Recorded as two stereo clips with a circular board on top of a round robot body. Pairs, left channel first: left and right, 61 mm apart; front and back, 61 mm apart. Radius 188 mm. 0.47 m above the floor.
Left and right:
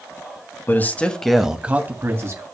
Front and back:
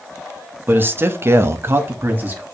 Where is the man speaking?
130° left, 1.0 m; by 2.4 s 120° right, 1.3 m.